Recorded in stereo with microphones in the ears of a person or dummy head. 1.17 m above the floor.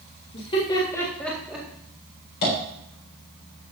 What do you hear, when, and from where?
0.3 s laughter: 35° left (ahead or behind), 2.0 m; by 1.7 s 10° right (ahead or behind), 2 m
2.4 s tapping: 60° left (ahead or behind), 4.5 m